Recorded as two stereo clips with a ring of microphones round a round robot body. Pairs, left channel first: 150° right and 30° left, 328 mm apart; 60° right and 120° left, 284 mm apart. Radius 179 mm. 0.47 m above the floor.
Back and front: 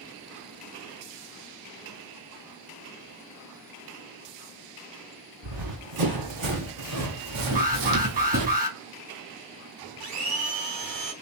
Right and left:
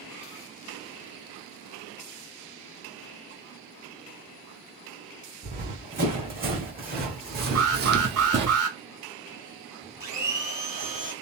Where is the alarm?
90° left, 2.5 m.